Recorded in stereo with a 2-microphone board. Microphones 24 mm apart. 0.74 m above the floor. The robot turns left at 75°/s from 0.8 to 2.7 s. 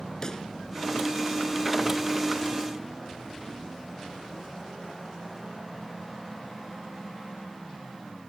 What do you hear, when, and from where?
0.2 s a pop: 30° left (ahead or behind)